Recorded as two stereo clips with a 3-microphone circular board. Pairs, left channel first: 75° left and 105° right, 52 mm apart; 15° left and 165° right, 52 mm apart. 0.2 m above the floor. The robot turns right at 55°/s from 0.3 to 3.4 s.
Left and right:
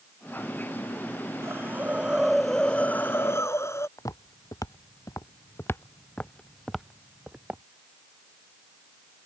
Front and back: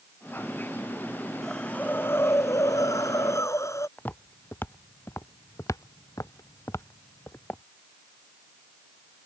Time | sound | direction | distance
1.4 | a hiss | 65° right | ?
4.0 | footsteps | 75° left | ?